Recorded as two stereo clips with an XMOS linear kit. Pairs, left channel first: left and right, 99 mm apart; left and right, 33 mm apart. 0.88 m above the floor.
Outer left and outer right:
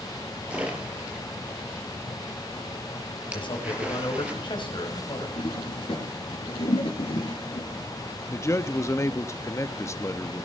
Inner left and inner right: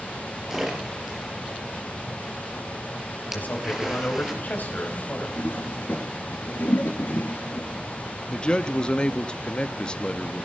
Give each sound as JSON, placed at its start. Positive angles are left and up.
{"t": 0.5, "sound": "a splash", "side_deg": -15, "distance_m": 4.5}
{"t": 3.3, "sound": "a man speaking", "side_deg": 55, "distance_m": 5.5}
{"t": 5.4, "sound": "a toilet flushing", "side_deg": 70, "distance_m": 3.5}
{"t": 8.3, "sound": "a man speaking", "side_deg": 30, "distance_m": 0.9}